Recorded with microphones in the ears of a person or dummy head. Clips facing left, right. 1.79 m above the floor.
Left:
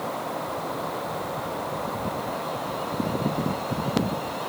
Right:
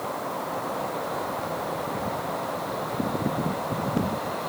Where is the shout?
No shout in this recording.